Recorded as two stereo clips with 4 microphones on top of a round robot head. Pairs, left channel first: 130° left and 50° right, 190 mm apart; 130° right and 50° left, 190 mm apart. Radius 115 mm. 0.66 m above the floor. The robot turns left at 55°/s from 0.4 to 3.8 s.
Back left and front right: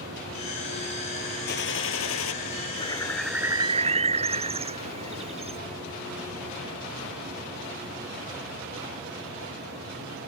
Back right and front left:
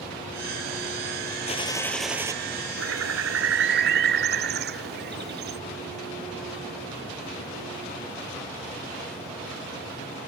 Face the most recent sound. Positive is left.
turn(degrees=10)